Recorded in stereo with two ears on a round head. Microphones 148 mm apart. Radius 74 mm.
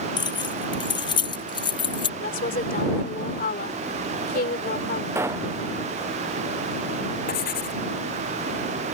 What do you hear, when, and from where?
0.2 s keys jangling: 30° left (ahead or behind)
2.2 s a woman speaking: 55° left (ahead or behind)
5.2 s a pop: 15° right (ahead or behind)
7.3 s writing: 60° left (ahead or behind)